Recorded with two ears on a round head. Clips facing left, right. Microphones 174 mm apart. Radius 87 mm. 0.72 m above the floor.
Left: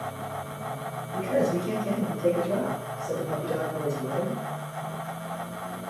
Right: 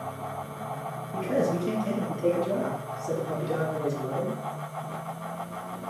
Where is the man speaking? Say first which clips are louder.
Left 1 dB; 35° right (ahead or behind), 0.9 m; by 4.4 s 50° right (ahead or behind), 2 m.